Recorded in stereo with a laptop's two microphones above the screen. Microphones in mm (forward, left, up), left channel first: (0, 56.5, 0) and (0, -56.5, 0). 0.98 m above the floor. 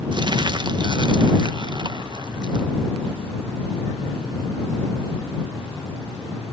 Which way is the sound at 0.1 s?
45° right (ahead or behind).